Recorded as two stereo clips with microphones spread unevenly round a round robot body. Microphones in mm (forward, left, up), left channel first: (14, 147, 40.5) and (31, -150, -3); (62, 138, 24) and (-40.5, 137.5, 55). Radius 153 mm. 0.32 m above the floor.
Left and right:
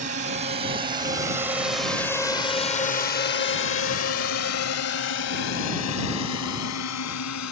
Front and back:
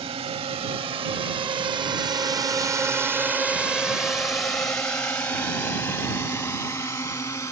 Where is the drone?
140° right; by 7.5 s 60° left.